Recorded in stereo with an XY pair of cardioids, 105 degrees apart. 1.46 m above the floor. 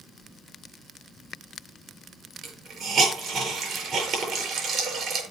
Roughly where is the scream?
No scream in this recording.